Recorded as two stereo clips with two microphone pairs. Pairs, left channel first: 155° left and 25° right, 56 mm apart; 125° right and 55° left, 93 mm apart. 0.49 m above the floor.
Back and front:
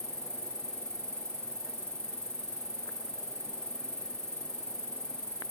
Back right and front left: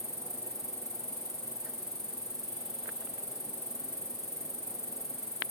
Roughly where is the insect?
Behind right.